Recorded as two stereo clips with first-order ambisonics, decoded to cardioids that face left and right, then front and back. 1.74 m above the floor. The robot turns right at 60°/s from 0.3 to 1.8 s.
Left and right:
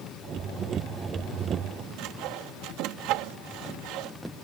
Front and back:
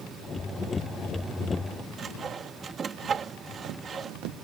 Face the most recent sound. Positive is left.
turn(degrees=-115)